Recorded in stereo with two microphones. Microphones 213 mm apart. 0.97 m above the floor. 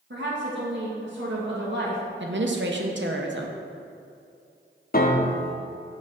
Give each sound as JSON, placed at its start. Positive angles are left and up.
{"t": 0.1, "sound": "a woman speaking", "side_deg": -60, "distance_m": 1.4}
{"t": 2.2, "sound": "a woman speaking", "side_deg": -60, "distance_m": 0.7}
{"t": 4.9, "sound": "a piano", "side_deg": 45, "distance_m": 0.7}